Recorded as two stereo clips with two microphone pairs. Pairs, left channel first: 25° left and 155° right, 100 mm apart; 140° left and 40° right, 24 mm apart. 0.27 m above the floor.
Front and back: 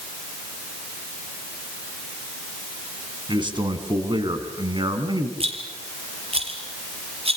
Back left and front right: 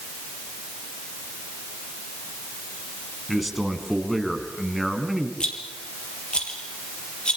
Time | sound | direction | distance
3.3 | a man speaking | 130° right | 3 m
5.4 | a rattle | 170° right | 3.5 m